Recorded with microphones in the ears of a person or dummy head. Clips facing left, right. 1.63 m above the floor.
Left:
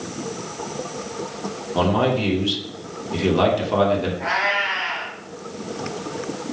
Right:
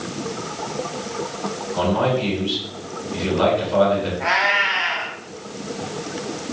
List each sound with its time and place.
1.8 s a man speaking: 75° left (ahead or behind), 2.5 m
4.2 s a cat meowing: 50° right (ahead or behind), 3.5 m